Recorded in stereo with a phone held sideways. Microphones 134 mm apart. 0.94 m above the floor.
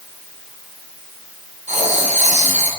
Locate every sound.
1.7 s writing: 65° right (ahead or behind), 1.7 m